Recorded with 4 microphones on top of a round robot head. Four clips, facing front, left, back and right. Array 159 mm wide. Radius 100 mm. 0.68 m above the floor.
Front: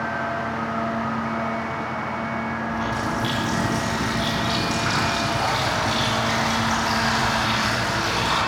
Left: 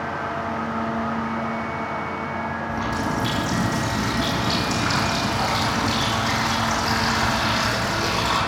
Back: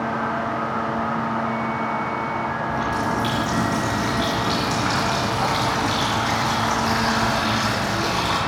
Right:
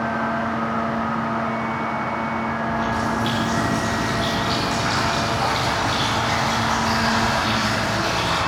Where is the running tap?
115° left, 6.5 m.